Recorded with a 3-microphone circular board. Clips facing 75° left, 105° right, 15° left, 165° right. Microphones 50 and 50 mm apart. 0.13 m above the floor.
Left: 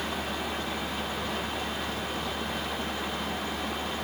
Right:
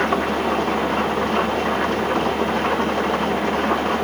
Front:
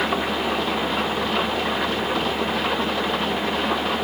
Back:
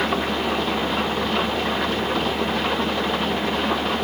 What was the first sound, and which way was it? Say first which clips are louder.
An engine running: right 13 dB, even; 75° right.